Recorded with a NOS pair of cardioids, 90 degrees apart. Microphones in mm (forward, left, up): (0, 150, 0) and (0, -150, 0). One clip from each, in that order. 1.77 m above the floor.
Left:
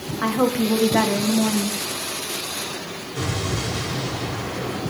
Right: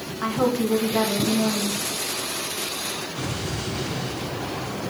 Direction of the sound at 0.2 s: 30° left.